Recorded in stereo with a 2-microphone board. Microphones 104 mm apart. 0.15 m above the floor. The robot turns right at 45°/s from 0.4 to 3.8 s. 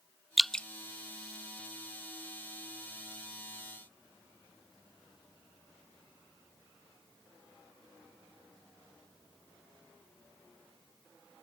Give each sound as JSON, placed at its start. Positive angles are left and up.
{"t": 0.4, "sound": "dripping", "side_deg": 0}